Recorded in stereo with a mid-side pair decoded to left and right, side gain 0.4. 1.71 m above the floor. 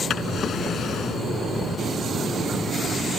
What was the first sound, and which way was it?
A drawer, 65° left.